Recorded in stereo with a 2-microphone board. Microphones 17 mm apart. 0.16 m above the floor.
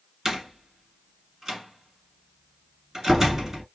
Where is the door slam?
25° right (ahead or behind), 1.9 m.